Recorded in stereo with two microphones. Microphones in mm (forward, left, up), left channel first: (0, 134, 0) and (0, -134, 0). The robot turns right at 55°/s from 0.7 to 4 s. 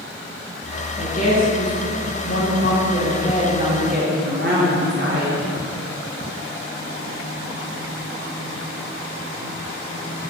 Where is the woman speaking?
50° left, 2 m; by 5.4 s 140° right, 2 m.